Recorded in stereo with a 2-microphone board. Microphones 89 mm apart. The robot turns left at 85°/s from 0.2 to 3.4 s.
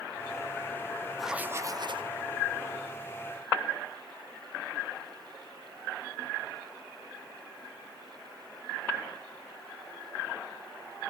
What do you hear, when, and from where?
1.2 s writing: straight ahead, 0.7 m; by 2.1 s 80° right, 0.7 m